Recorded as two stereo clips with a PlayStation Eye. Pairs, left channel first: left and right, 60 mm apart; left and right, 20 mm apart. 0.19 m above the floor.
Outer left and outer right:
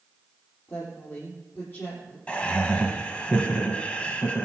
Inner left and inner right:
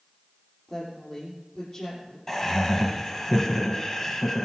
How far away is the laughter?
About 1.0 m.